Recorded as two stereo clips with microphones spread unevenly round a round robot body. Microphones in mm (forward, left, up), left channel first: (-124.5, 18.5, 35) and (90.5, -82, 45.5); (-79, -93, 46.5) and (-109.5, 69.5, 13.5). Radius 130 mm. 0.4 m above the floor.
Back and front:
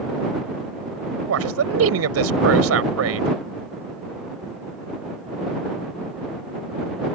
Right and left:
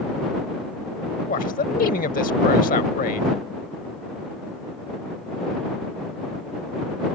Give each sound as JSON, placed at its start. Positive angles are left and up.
{"t": 1.3, "sound": "a man speaking", "azimuth_deg": -30}